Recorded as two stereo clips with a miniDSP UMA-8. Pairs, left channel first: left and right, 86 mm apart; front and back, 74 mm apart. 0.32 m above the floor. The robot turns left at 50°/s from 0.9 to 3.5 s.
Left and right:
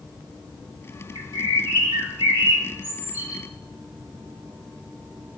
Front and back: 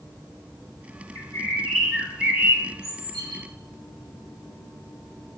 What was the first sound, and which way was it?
A bird, 50° right.